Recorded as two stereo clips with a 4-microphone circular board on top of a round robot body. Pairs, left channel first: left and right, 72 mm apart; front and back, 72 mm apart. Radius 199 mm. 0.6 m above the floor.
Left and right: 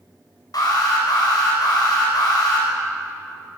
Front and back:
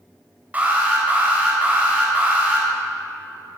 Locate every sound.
0.5 s an alarm: 110° left, 4.5 m